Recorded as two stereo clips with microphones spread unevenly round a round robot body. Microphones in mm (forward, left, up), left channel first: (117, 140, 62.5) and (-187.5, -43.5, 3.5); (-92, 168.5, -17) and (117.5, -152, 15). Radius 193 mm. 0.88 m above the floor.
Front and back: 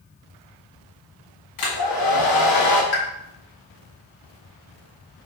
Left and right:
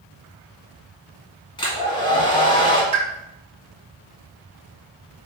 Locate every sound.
1.6 s a hair dryer: 45° left, 1.5 m
2.9 s a pop: 20° left, 1.5 m